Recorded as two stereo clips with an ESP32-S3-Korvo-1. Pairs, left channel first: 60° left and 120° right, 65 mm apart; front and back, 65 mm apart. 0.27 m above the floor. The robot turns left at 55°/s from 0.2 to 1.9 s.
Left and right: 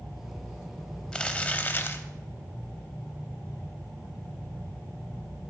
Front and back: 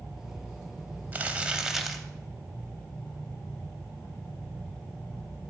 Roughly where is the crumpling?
Behind left.